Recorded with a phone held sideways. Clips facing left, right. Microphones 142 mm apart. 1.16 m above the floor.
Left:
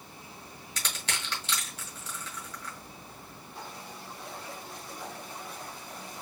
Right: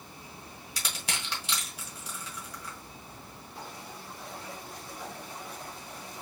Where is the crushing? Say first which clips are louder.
Even; 10° right (ahead or behind), 1.7 m.